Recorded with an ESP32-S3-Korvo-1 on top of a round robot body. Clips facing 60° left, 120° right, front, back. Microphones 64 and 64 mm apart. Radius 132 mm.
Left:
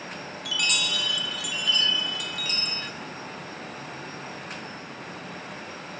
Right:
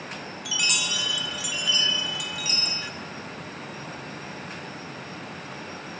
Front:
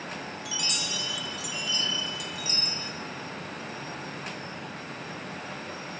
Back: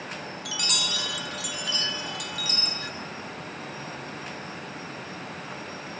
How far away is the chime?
About 1.0 m.